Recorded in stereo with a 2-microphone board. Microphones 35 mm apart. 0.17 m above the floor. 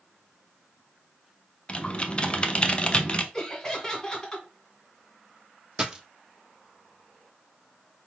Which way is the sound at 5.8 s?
20° right (ahead or behind).